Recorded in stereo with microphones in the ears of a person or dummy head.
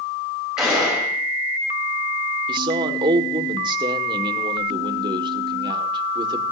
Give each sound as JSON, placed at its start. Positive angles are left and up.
{"t": 0.6, "sound": "a gunshot", "side_deg": -5, "distance_m": 5.5}
{"t": 2.5, "sound": "a man speaking", "side_deg": -25, "distance_m": 1.7}